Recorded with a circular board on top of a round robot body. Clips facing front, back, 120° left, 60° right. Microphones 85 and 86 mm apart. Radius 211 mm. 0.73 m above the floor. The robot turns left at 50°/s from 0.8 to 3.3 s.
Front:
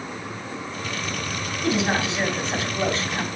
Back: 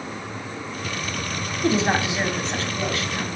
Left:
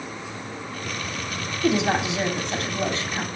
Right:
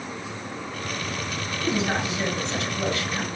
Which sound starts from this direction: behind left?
A woman speaking, at 1.6 s.